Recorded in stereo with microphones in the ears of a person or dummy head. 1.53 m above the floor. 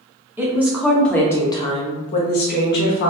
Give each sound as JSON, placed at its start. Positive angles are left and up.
{"t": 0.4, "sound": "a woman speaking", "side_deg": -15, "distance_m": 1.1}